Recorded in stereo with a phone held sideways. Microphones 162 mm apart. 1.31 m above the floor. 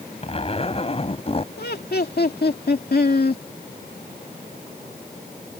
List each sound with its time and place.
0.2 s a zipper: 35° left (ahead or behind)
1.6 s laughter: 75° left (ahead or behind)